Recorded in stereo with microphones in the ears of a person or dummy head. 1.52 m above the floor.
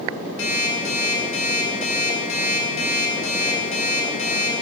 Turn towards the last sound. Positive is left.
turn(degrees=80)